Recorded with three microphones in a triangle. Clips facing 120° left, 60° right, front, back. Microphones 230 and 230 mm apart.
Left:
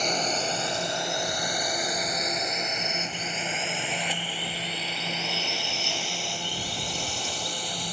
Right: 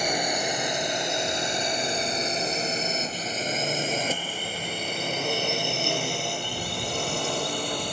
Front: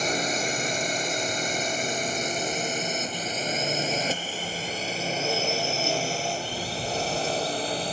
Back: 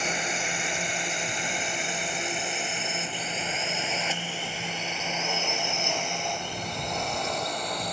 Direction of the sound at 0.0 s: 15° left.